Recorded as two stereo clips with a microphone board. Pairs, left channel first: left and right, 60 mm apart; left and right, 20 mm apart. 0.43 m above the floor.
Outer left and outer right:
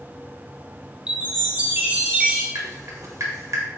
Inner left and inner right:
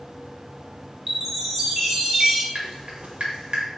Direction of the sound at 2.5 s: 60° right (ahead or behind).